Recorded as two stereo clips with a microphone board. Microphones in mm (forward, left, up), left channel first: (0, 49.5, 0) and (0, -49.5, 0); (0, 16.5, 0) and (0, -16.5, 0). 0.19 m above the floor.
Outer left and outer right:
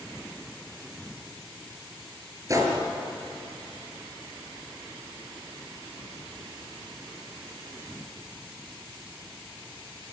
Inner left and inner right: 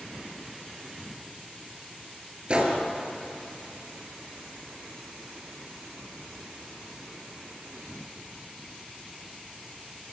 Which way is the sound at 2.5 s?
35° right (ahead or behind).